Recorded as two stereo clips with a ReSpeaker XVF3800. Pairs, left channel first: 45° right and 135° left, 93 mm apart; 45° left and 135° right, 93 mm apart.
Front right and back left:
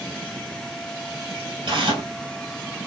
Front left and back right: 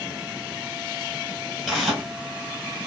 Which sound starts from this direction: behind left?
Tearing paper, at 1.7 s.